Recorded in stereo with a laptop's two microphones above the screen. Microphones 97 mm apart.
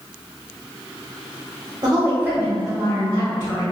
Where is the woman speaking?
40° right (ahead or behind), 1.0 m; by 3.6 s 30° left (ahead or behind), 1.6 m.